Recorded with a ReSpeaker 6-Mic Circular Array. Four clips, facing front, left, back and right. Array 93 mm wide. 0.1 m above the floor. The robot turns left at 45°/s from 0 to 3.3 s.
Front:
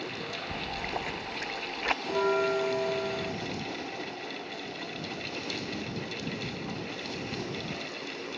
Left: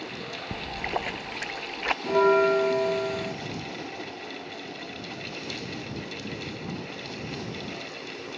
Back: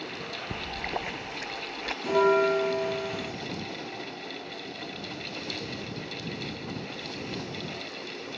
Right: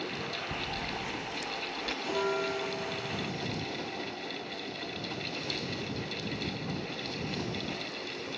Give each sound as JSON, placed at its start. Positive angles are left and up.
{"t": 0.5, "sound": "a splash", "azimuth_deg": 125}
{"t": 2.0, "sound": "a bell", "azimuth_deg": 130}